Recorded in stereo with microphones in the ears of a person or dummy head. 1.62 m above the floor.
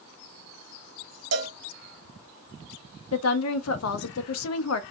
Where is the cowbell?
80° right, 0.8 m.